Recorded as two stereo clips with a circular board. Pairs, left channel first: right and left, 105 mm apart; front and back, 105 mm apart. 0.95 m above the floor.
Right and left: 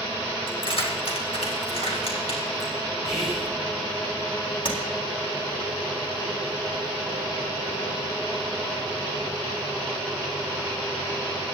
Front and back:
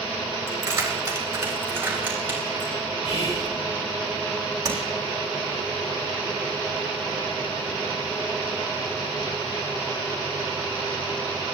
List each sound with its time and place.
0.5 s keys jangling: 120° right, 3 m; by 2.8 s 110° right, 5 m
3.0 s whispering: 5° left, 3.5 m
4.7 s tapping: 125° right, 3.5 m